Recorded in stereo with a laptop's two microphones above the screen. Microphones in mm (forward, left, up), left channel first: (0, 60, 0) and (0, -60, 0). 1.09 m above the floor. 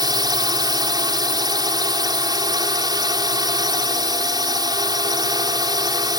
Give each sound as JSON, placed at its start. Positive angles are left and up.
{"t": 0.0, "sound": "a drone", "side_deg": -35}